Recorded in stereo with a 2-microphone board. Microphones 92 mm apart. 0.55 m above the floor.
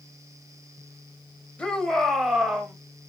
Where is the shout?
10° left (ahead or behind), 2.5 m; by 2.7 s 10° right (ahead or behind), 2.5 m.